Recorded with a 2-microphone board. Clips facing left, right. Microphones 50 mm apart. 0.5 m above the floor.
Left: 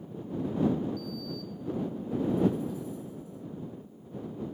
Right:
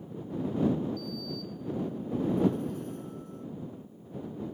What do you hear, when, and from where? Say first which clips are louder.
1.0 s a sliding door: even; 55° right (ahead or behind)